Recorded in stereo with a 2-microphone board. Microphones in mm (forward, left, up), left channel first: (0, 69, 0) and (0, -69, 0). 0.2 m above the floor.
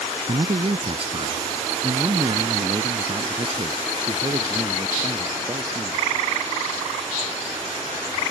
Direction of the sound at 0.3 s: 45° right (ahead or behind).